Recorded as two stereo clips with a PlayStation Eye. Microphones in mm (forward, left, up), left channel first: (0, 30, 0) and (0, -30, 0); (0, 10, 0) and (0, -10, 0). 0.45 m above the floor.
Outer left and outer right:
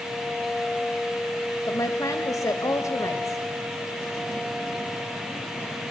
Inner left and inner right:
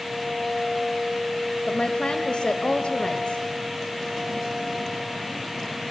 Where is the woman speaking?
60° left (ahead or behind), 1.9 m.